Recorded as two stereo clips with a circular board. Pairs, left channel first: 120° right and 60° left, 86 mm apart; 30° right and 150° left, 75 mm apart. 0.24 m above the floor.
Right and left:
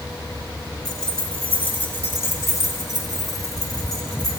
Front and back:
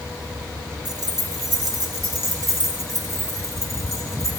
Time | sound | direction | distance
0.8 | keys jangling | 155° left | 1.5 m